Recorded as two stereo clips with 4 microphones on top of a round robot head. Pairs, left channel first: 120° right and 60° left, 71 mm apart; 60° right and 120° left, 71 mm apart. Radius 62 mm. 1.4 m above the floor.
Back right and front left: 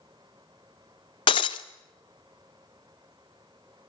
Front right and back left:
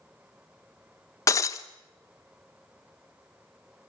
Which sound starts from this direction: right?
Breaking glass, at 1.3 s.